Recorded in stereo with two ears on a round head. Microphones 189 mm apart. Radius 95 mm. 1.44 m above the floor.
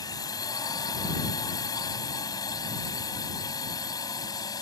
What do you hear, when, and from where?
0.0 s a drone: 20° left (ahead or behind)